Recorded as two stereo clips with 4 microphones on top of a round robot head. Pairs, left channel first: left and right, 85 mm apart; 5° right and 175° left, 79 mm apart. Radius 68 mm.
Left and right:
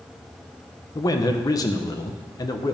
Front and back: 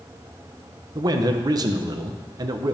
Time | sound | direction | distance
0.9 | a man speaking | 135° left | 1.1 m